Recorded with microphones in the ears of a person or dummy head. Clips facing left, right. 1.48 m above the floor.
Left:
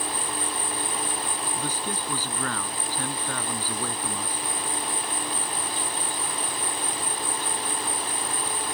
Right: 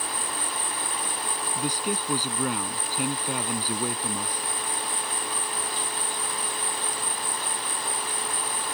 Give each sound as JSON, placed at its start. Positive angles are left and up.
{"t": 0.0, "sound": "an insect", "side_deg": 25}
{"t": 1.6, "sound": "a man speaking", "side_deg": -15}